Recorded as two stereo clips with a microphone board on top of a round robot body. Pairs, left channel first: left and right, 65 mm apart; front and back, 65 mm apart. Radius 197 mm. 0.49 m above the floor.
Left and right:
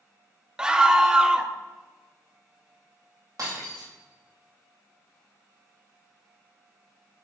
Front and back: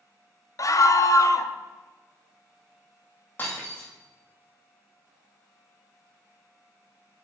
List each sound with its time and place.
0.6 s a scream: 15° right, 1.0 m
3.4 s breaking glass: 60° right, 2.5 m